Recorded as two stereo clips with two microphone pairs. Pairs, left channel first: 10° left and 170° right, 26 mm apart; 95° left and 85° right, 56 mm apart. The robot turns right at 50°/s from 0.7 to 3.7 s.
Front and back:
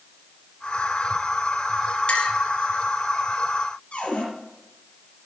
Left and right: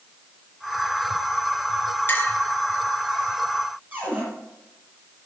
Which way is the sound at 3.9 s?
25° right.